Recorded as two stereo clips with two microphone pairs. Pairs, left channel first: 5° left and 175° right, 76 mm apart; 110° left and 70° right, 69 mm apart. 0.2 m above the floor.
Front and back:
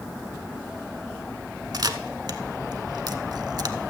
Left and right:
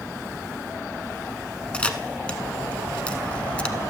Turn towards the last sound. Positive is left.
turn(degrees=180)